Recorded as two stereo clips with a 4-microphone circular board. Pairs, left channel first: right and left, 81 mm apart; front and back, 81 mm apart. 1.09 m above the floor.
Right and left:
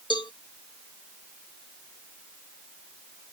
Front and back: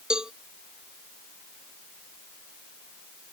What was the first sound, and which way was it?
A cowbell, 100° right.